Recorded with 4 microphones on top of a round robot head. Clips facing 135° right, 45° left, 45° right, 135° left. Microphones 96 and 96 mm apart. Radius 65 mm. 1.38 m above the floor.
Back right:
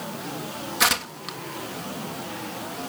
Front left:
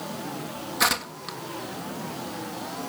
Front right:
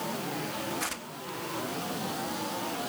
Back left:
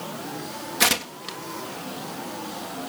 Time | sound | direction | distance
0.8 | tearing paper | 135° left | ?